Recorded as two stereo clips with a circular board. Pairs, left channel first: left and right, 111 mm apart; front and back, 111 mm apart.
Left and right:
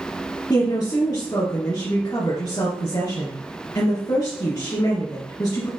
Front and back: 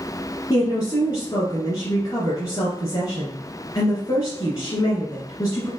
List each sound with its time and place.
0.5 s a woman speaking: 50° left, 2.5 m